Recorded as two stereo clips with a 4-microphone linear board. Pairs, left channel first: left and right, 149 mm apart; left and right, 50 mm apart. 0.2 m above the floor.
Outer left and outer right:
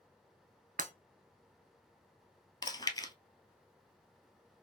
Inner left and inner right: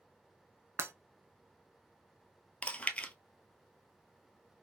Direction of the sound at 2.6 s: 25° left (ahead or behind).